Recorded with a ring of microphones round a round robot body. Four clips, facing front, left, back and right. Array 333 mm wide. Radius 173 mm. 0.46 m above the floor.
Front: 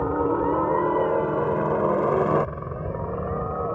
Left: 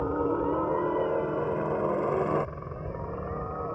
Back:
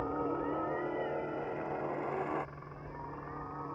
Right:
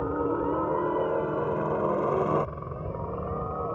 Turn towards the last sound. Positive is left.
turn(degrees=-10)